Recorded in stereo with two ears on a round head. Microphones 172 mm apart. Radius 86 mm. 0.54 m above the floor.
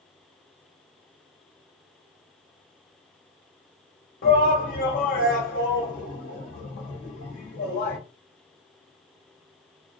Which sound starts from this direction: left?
A shout, at 4.2 s.